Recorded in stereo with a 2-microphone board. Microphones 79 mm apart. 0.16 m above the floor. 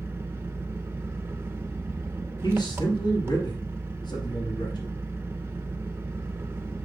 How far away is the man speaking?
About 2.5 m.